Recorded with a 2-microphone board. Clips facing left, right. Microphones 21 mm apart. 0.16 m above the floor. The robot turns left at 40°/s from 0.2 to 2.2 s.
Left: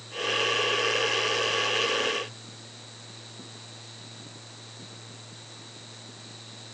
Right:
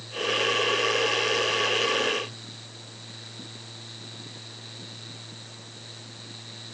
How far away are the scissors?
No scissors in this recording.